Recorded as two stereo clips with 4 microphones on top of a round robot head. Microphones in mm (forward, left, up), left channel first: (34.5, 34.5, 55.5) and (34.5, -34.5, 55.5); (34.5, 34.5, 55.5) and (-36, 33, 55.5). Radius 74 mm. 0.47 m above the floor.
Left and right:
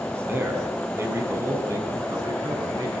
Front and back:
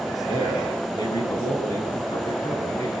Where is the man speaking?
35° right, 5.5 m; by 2.9 s 55° right, 5.5 m.